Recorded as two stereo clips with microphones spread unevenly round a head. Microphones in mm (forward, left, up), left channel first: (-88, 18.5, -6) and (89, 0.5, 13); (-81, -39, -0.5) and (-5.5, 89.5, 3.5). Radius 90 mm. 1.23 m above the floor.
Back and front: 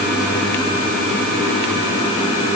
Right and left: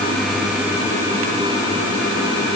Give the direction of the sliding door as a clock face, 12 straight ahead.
No sliding door in this recording.